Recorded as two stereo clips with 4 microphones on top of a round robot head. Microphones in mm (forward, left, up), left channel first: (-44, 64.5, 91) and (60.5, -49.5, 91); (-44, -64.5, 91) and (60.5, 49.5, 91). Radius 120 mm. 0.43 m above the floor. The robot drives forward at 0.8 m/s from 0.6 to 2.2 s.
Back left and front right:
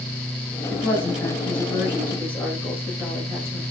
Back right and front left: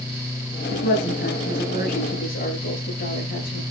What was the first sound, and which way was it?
A woman speaking, 145° right.